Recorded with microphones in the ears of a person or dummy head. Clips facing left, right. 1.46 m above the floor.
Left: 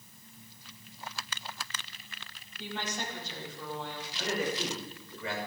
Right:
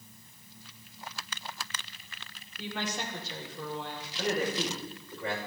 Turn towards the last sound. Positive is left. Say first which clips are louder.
# right 3 dB
turn(degrees=-45)  # may be behind; listen again after turning